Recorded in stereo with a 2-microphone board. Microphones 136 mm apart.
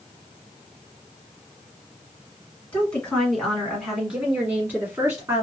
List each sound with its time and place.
2.7 s a woman speaking: 10° left (ahead or behind), 1.6 m; by 5.5 s 25° right (ahead or behind), 1.6 m